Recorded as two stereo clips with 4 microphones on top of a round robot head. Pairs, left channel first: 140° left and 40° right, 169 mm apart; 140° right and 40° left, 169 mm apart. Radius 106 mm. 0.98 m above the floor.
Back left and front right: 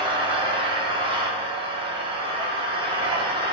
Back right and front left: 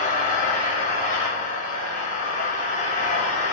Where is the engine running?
100° right, 2.5 m.